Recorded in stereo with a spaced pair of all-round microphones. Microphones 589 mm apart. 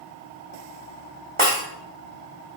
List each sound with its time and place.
1.4 s breaking glass: 50° right (ahead or behind), 4.5 m